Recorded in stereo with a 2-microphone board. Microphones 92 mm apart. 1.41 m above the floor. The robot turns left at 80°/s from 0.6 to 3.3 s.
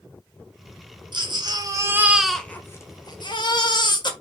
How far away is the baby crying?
About 1.6 m.